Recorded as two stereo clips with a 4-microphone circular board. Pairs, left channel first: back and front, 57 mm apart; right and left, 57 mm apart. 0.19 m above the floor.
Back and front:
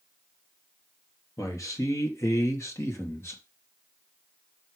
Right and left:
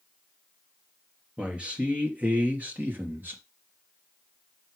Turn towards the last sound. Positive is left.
turn(degrees=140)